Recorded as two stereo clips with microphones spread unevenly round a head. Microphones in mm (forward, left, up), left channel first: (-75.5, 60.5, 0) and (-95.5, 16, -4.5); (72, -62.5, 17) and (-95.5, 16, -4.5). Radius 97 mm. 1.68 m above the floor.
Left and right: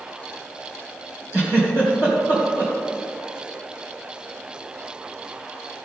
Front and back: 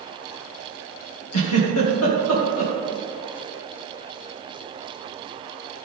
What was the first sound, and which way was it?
A giggle, 10° right.